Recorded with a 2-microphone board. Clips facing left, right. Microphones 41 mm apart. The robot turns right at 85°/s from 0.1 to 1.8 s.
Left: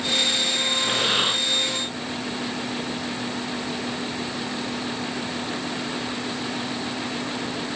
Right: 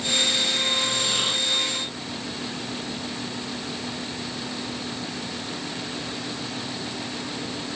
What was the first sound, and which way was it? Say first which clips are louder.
Breathing: left 3 dB; 120° left.